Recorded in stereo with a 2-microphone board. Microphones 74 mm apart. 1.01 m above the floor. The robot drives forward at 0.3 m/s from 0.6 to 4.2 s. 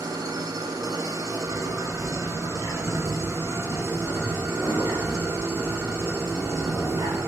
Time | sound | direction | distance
0.0 | an engine running | 60° right (ahead or behind) | 1.4 m
1.4 | a bird | 70° right (ahead or behind) | 7.5 m